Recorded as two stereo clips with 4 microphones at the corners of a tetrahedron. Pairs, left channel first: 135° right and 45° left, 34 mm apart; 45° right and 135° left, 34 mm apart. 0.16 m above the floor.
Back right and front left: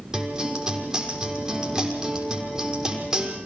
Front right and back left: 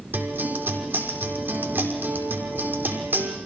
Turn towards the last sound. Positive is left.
turn(degrees=115)